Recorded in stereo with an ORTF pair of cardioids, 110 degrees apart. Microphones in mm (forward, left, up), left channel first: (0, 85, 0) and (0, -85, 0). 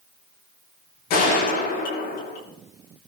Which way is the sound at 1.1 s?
70° left.